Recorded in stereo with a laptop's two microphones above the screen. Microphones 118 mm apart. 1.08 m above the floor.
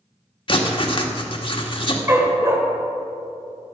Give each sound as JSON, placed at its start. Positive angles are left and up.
{"t": 0.5, "sound": "writing", "side_deg": 45, "distance_m": 1.5}
{"t": 2.1, "sound": "a dog barking", "side_deg": -25, "distance_m": 2.0}